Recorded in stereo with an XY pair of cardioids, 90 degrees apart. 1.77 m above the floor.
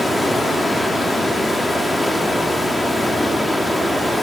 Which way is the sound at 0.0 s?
20° left.